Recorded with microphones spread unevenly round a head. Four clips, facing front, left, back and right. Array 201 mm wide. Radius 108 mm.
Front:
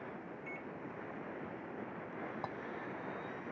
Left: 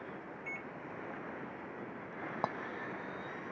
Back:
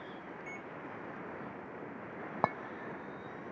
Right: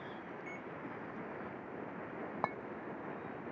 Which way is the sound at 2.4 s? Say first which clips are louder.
Left 1 dB, back 15 dB; 165° left.